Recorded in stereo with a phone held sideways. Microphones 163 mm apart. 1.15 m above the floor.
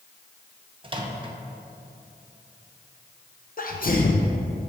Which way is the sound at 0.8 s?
30° right (ahead or behind).